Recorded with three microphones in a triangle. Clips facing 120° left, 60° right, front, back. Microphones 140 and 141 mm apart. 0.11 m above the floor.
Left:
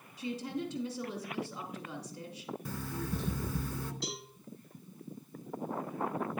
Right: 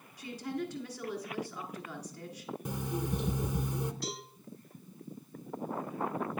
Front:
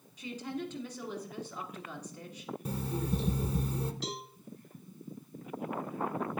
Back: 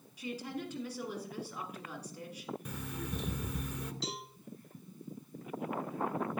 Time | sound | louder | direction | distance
0.2 | a woman speaking | left 1 dB, front 2 dB | 110° left | 1.8 m
2.6 | an alarm clock | right 4 dB, front 7 dB | 5° right | 0.6 m
4.0 | a cowbell | right 1 dB, front 2 dB | 65° left | 2.0 m